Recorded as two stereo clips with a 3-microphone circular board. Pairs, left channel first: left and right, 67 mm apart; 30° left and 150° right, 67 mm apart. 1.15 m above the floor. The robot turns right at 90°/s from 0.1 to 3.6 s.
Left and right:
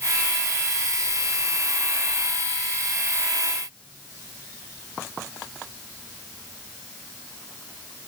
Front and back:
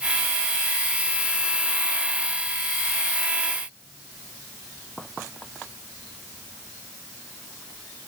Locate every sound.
Only background noise.